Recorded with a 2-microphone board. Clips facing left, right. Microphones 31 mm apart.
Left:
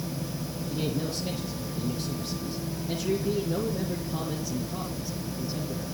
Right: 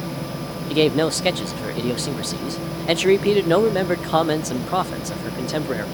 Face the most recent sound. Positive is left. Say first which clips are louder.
# right 14 dB
turn(degrees=-70)  # may be behind; listen again after turning